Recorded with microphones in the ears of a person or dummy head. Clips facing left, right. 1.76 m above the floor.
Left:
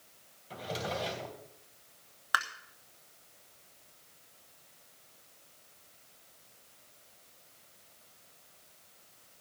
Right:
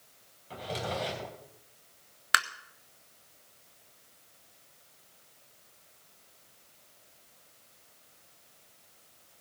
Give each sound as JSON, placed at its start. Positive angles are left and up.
{"t": 0.5, "sound": "a drawer", "side_deg": 0, "distance_m": 3.0}
{"t": 2.3, "sound": "tapping", "side_deg": -35, "distance_m": 1.2}